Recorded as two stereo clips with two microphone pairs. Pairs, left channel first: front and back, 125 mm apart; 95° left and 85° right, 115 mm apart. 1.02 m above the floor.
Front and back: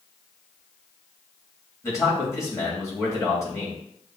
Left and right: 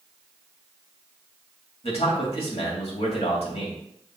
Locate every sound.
1.8 s a man speaking: 65° left, 2.5 m